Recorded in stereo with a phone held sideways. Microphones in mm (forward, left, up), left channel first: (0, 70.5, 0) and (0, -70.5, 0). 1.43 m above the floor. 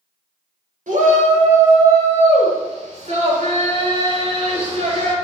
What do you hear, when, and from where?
0.9 s a shout: 80° right, 5.5 m; by 5.1 s 55° right (ahead or behind), 6.5 m